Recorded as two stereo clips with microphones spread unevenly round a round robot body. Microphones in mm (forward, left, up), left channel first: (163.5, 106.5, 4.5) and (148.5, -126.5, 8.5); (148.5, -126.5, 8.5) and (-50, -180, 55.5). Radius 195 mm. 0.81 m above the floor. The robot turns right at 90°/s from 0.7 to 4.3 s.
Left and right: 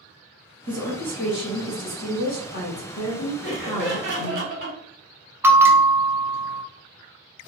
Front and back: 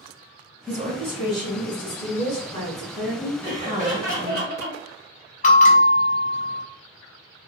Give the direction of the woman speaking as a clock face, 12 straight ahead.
4 o'clock.